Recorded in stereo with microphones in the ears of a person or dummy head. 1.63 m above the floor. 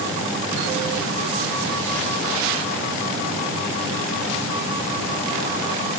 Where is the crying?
No crying in this recording.